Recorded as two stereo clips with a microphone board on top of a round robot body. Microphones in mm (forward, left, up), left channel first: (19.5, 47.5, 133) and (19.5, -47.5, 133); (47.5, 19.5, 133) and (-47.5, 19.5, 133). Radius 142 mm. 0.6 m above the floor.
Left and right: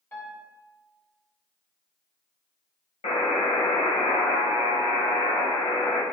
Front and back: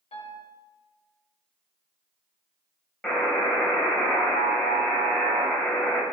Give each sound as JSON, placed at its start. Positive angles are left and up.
{"t": 0.1, "sound": "a piano", "azimuth_deg": 25, "distance_m": 1.3}
{"t": 3.0, "sound": "a buzzer", "azimuth_deg": 85, "distance_m": 1.5}